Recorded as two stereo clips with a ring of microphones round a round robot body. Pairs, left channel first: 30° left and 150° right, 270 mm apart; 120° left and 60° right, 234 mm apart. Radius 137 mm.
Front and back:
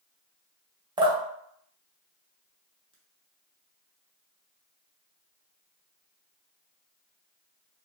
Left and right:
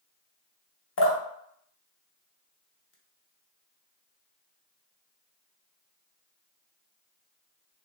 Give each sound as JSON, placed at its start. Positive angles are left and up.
{"t": 1.0, "sound": "dripping", "azimuth_deg": 140, "distance_m": 0.7}